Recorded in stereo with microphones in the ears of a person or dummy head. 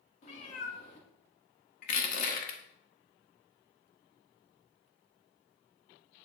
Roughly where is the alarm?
No alarm in this recording.